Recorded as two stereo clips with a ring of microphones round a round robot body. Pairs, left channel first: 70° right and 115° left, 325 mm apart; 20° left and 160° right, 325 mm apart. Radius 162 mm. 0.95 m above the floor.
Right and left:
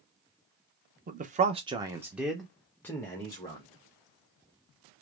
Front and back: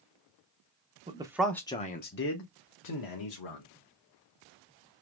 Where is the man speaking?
150° left, 0.7 m; by 3.7 s 10° left, 1.3 m.